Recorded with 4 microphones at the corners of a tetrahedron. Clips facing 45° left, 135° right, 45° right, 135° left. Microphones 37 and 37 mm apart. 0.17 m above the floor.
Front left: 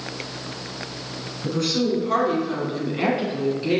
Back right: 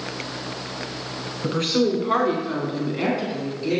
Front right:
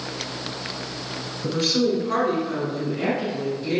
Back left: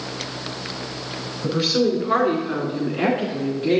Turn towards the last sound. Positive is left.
turn(degrees=100)